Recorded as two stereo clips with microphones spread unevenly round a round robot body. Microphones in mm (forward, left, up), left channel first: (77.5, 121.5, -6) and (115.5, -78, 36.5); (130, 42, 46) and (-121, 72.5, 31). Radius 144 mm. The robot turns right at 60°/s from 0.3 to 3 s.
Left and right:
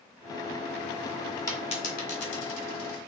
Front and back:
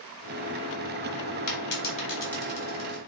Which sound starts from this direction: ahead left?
A dropped coin, at 1.5 s.